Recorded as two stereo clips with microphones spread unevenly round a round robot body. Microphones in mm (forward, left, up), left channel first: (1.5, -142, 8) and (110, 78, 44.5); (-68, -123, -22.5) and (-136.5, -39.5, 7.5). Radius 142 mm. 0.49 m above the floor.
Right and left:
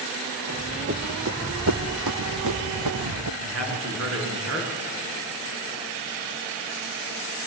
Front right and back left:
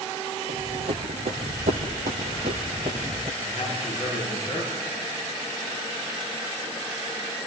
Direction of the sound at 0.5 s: 125° left.